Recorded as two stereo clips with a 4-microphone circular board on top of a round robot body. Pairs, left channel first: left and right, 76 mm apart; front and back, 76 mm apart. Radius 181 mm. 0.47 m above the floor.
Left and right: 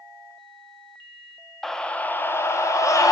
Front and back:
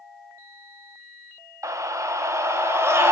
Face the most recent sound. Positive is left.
turn(degrees=125)